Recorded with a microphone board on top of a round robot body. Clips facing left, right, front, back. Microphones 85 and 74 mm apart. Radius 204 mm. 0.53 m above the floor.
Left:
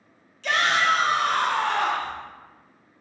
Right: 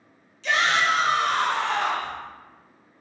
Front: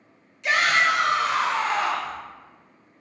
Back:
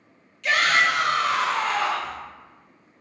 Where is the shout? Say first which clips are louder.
Even, even; 65° left, 1.3 m.